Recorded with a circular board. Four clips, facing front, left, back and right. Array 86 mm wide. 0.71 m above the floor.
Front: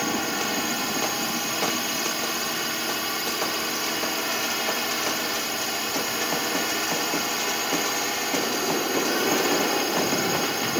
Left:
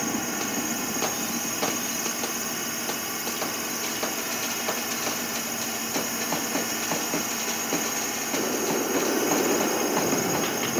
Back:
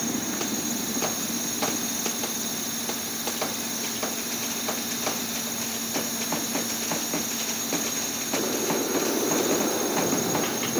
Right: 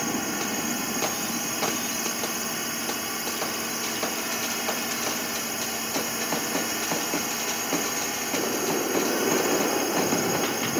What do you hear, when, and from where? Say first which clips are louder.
0.0 s a drone: even, front 3 dB; straight ahead